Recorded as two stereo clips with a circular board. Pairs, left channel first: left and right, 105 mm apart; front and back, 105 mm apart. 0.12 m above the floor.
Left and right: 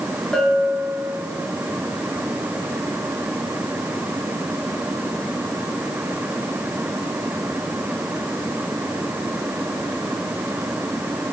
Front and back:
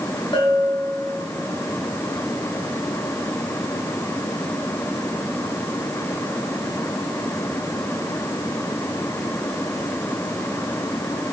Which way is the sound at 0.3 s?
10° left.